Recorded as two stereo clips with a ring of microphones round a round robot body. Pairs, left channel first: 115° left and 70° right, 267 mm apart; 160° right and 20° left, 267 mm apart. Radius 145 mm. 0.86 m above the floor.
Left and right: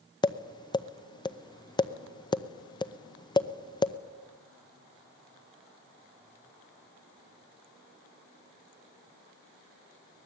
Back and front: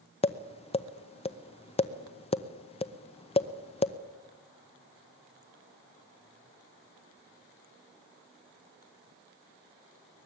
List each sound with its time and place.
0.2 s tapping: 165° left, 0.9 m